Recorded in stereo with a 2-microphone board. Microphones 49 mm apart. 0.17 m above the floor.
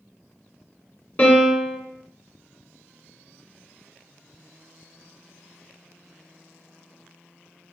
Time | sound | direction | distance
1.2 | a piano | 35° left (ahead or behind) | 1.2 m